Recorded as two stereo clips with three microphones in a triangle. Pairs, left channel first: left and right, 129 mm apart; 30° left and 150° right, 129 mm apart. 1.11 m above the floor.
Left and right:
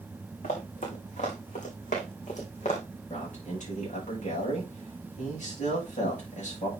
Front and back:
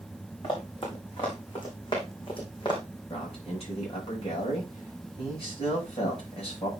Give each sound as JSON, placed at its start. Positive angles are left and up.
{"t": 0.4, "sound": "running footsteps", "azimuth_deg": 80, "distance_m": 5.5}
{"t": 3.1, "sound": "a man speaking", "azimuth_deg": 70, "distance_m": 7.0}